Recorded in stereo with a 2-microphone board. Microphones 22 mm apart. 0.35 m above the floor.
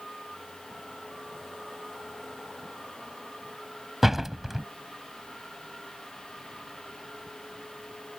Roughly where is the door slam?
Centre.